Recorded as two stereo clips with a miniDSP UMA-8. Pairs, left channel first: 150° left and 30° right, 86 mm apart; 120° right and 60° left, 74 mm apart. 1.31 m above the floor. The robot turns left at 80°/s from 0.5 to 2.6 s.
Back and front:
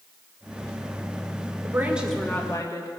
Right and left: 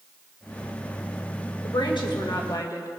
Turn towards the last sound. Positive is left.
turn(degrees=-160)